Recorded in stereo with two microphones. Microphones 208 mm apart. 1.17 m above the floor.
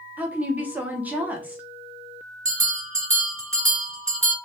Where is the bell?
75° right (ahead or behind), 1.2 m.